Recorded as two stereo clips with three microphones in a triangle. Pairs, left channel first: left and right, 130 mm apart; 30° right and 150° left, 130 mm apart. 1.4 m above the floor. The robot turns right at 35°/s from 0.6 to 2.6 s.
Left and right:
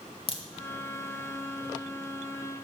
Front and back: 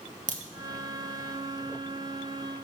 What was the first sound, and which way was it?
A crack, 135° left.